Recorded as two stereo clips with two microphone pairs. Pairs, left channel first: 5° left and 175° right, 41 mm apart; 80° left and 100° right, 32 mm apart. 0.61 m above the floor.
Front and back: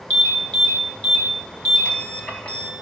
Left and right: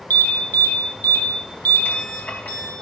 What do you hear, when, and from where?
0.1 s an alarm: 70° left, 2.5 m